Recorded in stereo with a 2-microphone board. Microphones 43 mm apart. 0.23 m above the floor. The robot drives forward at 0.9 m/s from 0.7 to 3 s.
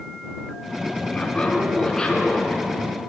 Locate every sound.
1.1 s laughter: 25° left (ahead or behind), 2.5 m; by 3.0 s 15° left (ahead or behind), 4 m